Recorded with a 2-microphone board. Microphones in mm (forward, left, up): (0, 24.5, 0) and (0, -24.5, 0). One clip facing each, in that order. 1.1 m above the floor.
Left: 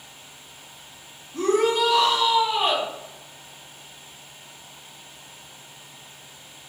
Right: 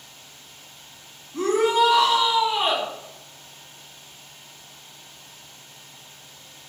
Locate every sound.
1.3 s a shout: 15° right (ahead or behind), 1.7 m